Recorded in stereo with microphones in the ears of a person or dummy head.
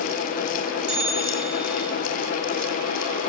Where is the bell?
35° right (ahead or behind), 4.5 m.